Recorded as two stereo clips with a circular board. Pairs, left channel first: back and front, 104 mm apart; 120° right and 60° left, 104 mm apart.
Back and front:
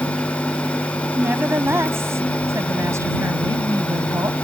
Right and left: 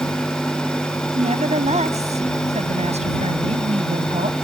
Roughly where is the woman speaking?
Left.